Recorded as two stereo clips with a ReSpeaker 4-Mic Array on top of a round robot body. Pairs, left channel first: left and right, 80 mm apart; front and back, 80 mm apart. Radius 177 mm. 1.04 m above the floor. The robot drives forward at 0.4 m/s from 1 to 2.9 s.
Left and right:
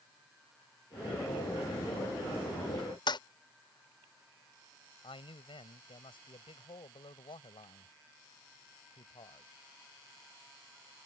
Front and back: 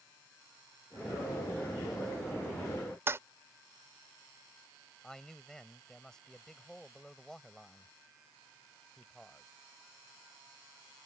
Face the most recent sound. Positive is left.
turn(degrees=85)